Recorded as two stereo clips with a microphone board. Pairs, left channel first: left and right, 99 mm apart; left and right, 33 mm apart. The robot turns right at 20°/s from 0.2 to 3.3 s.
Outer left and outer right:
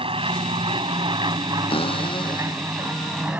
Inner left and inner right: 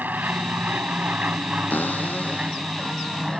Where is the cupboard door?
115° left; by 3.4 s 145° left.